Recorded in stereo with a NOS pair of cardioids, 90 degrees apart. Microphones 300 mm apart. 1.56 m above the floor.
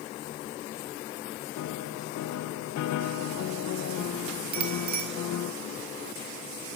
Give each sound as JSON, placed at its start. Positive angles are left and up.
{"t": 1.6, "sound": "a piano", "azimuth_deg": 65, "distance_m": 1.4}
{"t": 4.5, "sound": "a bicycle bell", "azimuth_deg": -70, "distance_m": 5.0}